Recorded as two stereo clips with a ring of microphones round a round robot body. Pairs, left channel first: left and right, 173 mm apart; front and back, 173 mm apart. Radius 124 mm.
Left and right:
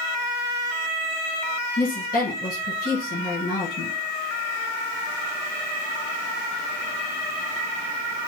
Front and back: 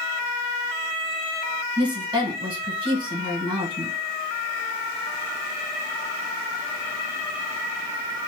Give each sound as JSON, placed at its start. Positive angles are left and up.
{"t": 1.8, "sound": "a woman speaking", "azimuth_deg": 120, "distance_m": 2.0}